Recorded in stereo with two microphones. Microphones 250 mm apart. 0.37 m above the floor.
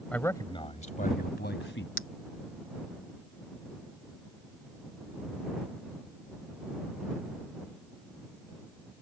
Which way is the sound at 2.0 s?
55° left (ahead or behind).